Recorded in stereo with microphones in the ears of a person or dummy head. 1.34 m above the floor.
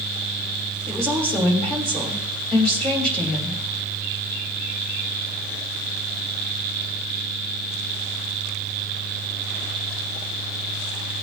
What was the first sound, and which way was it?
A woman speaking, 5° left (ahead or behind).